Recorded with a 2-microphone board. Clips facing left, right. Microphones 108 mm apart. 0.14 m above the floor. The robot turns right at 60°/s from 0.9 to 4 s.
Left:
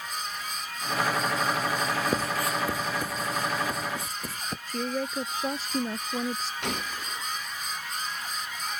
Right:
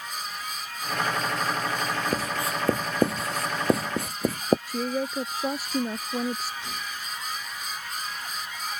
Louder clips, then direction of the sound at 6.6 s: Left 3 dB; 70° left (ahead or behind).